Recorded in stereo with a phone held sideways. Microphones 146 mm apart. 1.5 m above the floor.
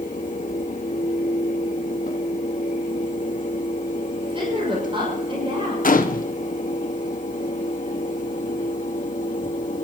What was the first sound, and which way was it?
A fan, 60° left (ahead or behind).